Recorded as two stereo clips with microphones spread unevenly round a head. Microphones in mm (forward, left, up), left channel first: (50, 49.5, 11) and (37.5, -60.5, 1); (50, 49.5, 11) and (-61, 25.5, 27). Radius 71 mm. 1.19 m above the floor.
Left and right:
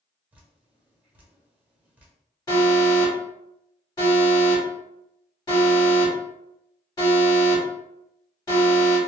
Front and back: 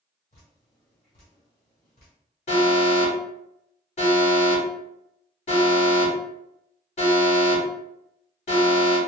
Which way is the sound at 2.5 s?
30° left.